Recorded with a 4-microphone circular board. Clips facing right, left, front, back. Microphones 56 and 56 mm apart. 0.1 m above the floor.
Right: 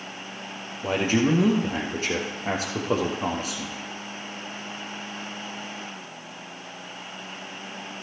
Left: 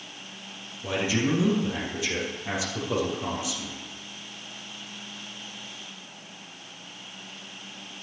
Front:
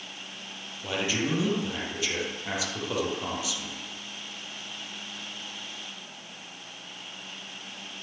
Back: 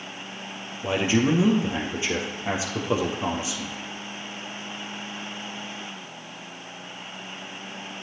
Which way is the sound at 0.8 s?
120° right.